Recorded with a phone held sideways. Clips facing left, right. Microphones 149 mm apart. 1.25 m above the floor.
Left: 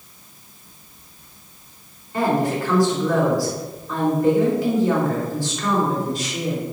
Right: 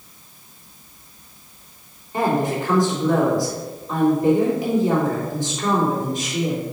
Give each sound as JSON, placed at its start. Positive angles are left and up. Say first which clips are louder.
{"t": 2.1, "sound": "a woman speaking", "louder": "even", "side_deg": -20, "distance_m": 3.0}